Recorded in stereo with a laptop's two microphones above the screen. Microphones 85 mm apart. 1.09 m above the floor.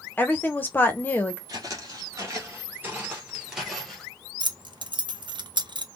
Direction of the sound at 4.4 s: 65° right (ahead or behind).